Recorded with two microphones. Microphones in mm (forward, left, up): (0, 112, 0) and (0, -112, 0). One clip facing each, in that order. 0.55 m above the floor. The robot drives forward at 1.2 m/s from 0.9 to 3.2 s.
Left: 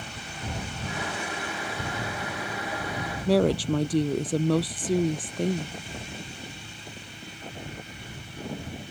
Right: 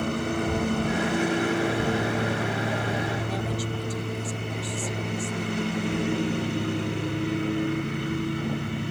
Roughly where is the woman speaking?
Left.